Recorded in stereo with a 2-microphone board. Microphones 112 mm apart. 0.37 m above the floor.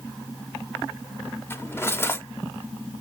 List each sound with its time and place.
1.5 s cutlery clinking: 20° left (ahead or behind), 0.7 m